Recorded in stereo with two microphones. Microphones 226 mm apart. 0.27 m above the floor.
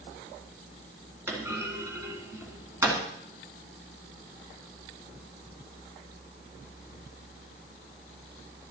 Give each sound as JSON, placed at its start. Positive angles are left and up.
{"t": 1.3, "sound": "a clunk", "side_deg": -10, "distance_m": 1.9}